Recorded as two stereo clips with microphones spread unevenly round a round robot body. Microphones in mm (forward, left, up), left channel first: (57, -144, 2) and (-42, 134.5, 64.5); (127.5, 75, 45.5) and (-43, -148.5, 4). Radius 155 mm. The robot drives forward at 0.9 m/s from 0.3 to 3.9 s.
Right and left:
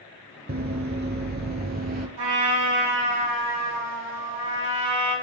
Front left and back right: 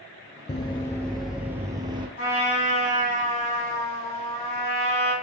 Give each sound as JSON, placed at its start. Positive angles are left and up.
{"t": 0.5, "sound": "running footsteps", "azimuth_deg": 100, "distance_m": 0.5}
{"t": 2.2, "sound": "a trumpet", "azimuth_deg": 110, "distance_m": 4.0}